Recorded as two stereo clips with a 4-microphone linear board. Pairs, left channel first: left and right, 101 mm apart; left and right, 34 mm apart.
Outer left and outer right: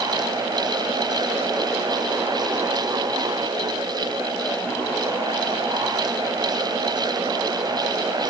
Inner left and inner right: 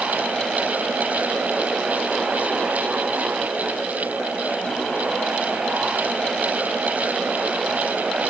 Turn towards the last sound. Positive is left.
No sound to turn to.